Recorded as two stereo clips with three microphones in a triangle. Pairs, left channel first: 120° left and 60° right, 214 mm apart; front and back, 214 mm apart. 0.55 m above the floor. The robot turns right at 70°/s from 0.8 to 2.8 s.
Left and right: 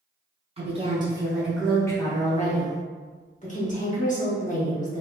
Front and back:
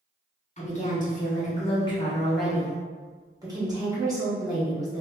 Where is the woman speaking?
20° right, 0.9 m; by 5.0 s 120° left, 0.9 m.